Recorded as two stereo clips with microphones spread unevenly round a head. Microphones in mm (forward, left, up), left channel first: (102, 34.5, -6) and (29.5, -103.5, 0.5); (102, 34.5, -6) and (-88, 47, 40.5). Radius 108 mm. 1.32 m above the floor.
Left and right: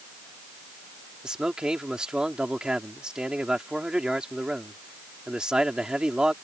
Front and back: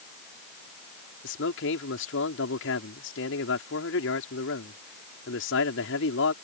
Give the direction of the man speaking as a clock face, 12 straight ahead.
1 o'clock.